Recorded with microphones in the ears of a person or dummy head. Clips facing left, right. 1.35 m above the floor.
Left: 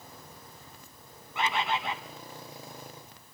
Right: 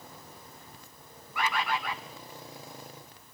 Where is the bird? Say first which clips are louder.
Left 1 dB; 15° left (ahead or behind), 1.1 m.